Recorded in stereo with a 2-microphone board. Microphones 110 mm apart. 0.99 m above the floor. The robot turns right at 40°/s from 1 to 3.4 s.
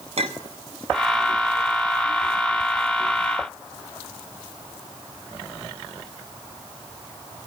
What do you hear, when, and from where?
0.2 s a clink: 65° right (ahead or behind), 0.9 m